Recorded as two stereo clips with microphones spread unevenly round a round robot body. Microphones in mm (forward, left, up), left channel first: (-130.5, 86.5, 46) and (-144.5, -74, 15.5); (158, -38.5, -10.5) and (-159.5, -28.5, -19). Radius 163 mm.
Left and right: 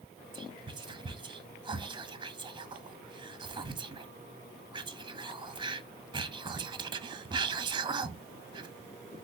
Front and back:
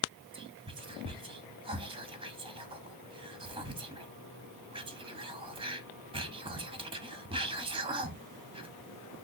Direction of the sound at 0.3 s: 120° right.